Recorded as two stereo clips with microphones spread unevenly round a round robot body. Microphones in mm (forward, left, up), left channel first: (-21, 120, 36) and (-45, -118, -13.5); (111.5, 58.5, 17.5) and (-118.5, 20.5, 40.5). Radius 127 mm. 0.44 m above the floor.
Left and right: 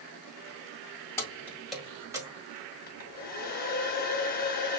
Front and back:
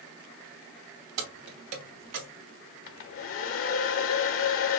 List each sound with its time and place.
1.2 s keys jangling: 165° left, 1.9 m; by 2.3 s 160° right, 1.5 m
2.9 s a hair dryer: 25° left, 0.8 m